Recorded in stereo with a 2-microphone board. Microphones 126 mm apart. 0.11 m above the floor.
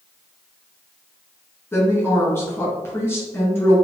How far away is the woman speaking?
About 1.6 m.